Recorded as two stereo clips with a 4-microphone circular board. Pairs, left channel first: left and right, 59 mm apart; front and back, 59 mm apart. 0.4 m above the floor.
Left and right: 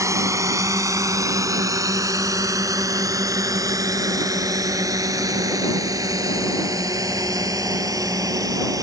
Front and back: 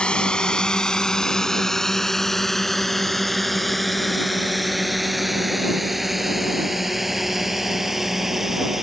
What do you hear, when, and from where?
0.0 s a drone: 70° right; by 8.8 s 95° right